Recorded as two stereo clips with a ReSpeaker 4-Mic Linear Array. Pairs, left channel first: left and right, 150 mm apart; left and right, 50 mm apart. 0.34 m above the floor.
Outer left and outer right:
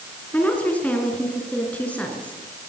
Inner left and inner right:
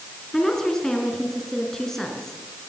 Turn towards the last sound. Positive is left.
turn(degrees=10)  # may be behind; listen again after turning